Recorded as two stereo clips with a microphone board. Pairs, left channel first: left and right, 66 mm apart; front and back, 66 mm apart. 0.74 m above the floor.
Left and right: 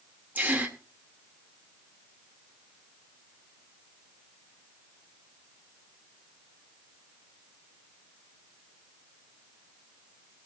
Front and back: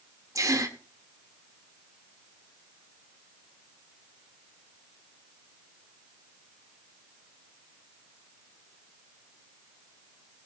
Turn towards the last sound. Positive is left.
turn(degrees=-155)